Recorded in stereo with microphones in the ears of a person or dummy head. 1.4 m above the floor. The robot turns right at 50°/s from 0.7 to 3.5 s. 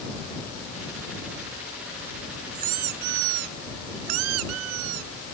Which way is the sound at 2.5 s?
145° right.